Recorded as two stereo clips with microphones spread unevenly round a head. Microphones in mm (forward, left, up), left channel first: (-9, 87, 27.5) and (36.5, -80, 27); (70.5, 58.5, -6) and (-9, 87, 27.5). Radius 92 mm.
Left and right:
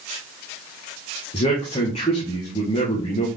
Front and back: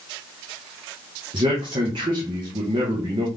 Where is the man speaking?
165° left, 1.2 m.